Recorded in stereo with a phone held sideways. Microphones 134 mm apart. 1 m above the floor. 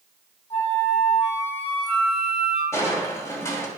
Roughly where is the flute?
Left.